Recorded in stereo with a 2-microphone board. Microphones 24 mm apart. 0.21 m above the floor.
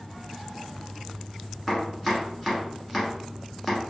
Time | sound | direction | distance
1.7 | chopping | centre (ahead or behind) | 1.3 m